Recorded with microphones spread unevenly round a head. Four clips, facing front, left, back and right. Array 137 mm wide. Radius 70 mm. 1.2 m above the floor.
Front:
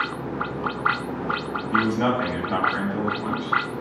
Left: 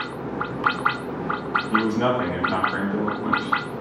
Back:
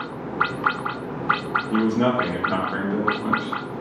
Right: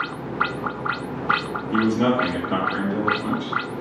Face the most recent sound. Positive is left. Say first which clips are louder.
# right 3 dB, back 1 dB
turn(degrees=-160)